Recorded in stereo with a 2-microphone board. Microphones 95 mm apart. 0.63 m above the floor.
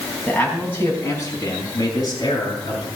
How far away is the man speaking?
About 4 m.